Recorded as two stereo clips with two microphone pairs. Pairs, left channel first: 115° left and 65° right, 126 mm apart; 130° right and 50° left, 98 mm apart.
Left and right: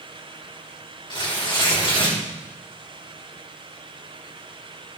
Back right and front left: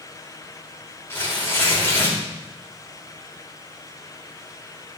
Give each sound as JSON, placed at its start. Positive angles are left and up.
{"t": 1.1, "sound": "tearing paper", "azimuth_deg": 165, "distance_m": 4.5}